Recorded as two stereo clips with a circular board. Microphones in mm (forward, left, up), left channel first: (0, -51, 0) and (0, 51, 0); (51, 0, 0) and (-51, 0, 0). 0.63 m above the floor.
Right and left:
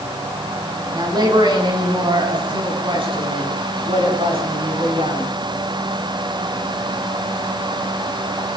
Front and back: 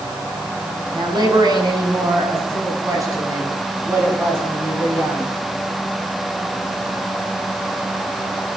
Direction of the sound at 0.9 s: 135° left.